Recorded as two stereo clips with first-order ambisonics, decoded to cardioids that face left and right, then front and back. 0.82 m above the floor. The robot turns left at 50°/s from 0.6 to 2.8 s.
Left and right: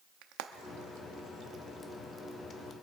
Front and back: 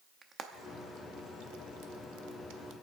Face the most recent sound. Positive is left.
turn(degrees=140)